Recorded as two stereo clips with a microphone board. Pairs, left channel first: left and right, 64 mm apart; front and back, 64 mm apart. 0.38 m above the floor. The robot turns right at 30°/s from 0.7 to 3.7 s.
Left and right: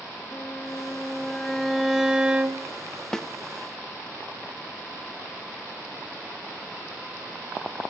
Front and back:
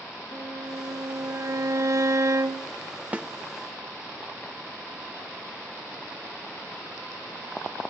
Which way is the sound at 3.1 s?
160° left.